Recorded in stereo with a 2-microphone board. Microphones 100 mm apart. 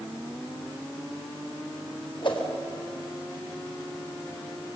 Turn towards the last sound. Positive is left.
turn(degrees=55)  # may be behind; listen again after turning